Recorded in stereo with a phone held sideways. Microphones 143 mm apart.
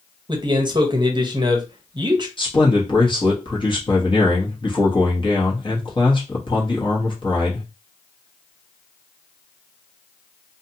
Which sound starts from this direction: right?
A man speaking, at 0.3 s.